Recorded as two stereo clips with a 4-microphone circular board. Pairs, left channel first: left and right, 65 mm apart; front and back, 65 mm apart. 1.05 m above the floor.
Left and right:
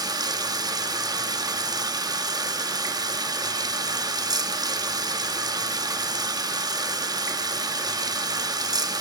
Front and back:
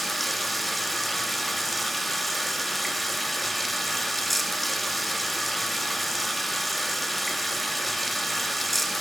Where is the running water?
90° right, 1.0 m.